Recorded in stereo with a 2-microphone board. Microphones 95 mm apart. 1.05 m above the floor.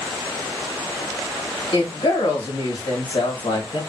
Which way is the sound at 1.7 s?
65° left (ahead or behind).